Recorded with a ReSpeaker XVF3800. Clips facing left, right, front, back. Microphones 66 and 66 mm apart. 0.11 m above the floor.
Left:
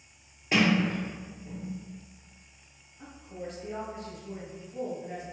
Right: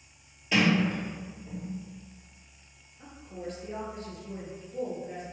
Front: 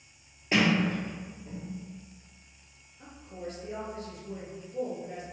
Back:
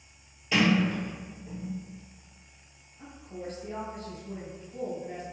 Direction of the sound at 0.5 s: 45° left.